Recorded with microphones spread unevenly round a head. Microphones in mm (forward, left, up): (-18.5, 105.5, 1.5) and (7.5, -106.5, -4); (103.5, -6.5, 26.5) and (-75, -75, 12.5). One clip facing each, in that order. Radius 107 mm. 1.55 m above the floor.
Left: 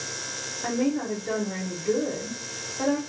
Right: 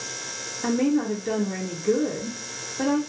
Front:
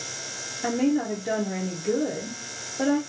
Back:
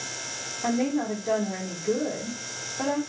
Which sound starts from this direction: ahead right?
A woman speaking, at 0.6 s.